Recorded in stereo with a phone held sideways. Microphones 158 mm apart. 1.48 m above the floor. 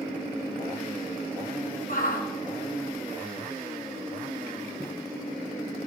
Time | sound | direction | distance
1.9 | a shout | 65° left (ahead or behind) | 4 m
4.8 | footsteps | 25° right (ahead or behind) | 1.7 m